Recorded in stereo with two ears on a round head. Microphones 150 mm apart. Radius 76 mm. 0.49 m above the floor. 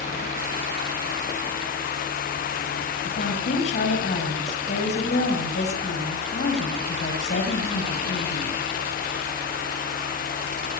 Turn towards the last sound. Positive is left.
turn(degrees=45)  # may be behind; listen again after turning